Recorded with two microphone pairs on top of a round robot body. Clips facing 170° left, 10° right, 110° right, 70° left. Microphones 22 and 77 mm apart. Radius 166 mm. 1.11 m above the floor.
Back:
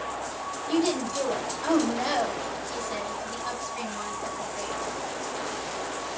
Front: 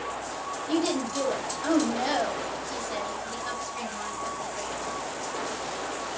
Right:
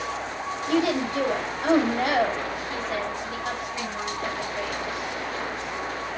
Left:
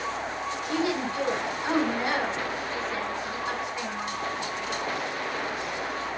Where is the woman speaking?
100° right, 3.5 m.